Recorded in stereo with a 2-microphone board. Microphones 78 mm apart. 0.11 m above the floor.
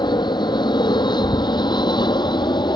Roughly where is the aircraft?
Left.